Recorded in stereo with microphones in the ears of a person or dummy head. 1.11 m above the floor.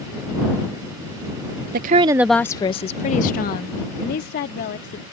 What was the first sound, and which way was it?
A woman speaking, 50° right (ahead or behind).